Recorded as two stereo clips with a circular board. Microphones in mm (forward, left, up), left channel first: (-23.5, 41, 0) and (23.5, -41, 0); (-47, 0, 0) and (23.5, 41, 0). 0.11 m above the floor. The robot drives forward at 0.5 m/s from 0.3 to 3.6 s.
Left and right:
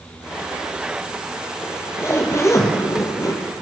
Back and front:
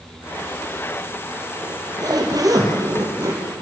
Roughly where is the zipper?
Ahead left.